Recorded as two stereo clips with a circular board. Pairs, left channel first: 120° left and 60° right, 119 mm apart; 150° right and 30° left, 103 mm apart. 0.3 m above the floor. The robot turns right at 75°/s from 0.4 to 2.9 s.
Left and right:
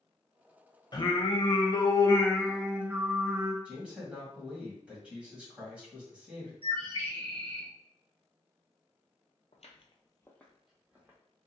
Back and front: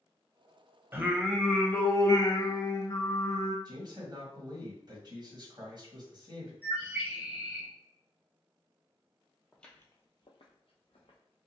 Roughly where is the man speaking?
Ahead.